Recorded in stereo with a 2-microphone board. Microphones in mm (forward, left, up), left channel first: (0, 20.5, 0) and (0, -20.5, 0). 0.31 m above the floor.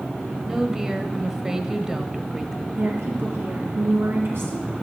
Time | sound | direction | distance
0.5 | a woman speaking | 15° right (ahead or behind) | 1.1 m
2.8 | a woman speaking | 70° right (ahead or behind) | 4.5 m